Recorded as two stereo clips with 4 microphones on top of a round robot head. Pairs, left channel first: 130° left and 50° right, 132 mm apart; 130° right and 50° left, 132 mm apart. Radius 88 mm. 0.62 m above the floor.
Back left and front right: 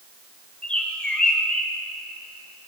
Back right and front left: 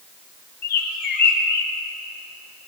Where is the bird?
150° right, 2 m.